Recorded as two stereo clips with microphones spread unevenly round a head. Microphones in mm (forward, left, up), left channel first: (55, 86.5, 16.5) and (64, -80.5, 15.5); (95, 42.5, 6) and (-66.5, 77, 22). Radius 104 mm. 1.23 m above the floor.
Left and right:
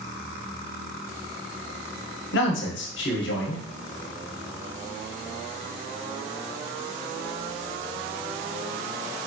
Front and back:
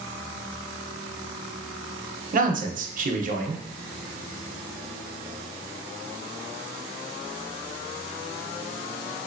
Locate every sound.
2.3 s a man speaking: 130° left, 0.8 m